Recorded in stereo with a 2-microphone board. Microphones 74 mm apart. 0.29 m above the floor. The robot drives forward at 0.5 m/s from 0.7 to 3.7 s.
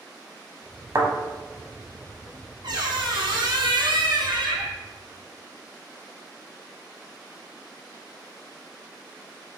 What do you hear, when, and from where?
0.9 s a thud: 55° right (ahead or behind), 0.9 m
2.6 s a squeak: 70° right (ahead or behind), 1.2 m; by 4.8 s 80° right, 1.2 m